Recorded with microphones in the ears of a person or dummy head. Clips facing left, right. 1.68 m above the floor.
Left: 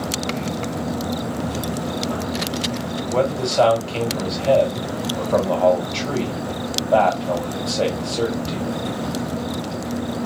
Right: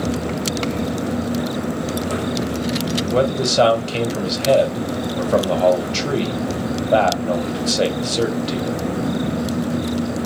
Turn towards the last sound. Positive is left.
turn(degrees=-20)  # may be behind; listen again after turning